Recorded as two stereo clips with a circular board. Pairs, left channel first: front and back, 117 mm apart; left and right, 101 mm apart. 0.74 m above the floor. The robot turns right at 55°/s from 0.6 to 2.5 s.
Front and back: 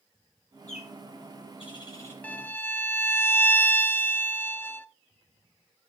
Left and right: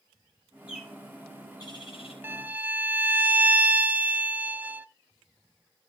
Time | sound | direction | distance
0.7 | a bird | 10° right | 4.5 m
2.2 | a violin | 55° right | 0.5 m